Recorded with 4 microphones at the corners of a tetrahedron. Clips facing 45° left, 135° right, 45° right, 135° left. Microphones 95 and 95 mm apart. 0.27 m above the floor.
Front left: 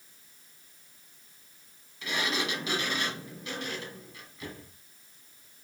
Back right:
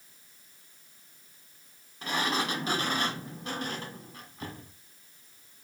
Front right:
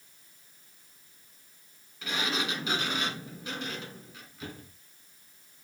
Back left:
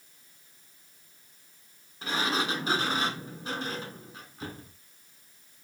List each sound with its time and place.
2.0 s a sliding door: 175° right, 1.7 m